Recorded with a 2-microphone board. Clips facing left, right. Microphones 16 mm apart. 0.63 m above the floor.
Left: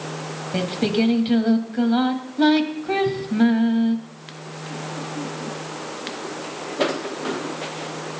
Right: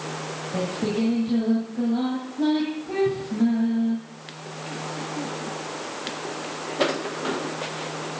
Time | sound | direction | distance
0.5 | singing | 75° left (ahead or behind) | 1.8 m